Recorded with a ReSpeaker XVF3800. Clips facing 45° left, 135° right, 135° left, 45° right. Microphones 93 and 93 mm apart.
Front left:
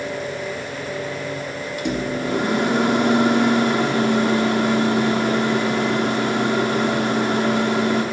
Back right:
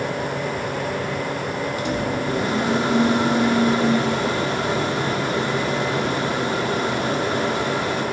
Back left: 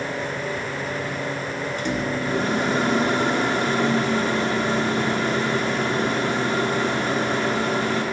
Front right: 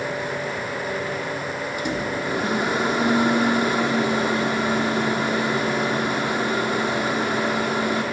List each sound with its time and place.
1.8 s a microwave: 30° left, 1.2 m